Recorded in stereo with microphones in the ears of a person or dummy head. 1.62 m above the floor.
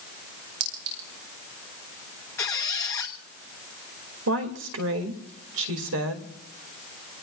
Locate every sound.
0.6 s a clink: 85° right, 6.5 m
2.4 s a squeak: 15° left (ahead or behind), 1.1 m
4.3 s a woman speaking: 80° right, 2.5 m